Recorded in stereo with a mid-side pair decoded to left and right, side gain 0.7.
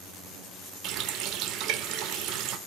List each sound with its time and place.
0.8 s a running tap: 55° right, 0.6 m